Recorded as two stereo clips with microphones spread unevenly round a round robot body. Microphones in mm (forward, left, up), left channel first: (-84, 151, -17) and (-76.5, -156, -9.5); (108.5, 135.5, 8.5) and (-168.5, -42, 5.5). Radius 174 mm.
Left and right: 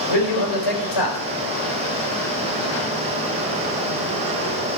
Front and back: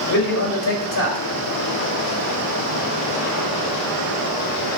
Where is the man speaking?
85° left, 3.5 m.